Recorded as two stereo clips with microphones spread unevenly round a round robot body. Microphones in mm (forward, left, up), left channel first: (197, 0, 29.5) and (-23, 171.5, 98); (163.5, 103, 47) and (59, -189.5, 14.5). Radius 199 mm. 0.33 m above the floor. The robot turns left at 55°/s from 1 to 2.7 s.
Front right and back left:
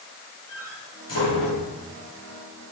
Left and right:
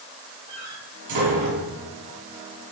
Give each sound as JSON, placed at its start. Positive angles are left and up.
{"t": 0.5, "sound": "a door slam", "azimuth_deg": -75, "distance_m": 4.5}